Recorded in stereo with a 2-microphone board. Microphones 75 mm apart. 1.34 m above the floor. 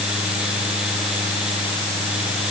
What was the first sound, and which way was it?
Only background noise.